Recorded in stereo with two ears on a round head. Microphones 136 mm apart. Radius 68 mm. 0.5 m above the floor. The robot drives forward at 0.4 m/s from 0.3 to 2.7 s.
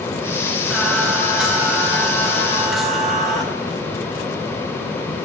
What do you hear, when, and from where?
0.7 s singing: centre (ahead or behind), 3 m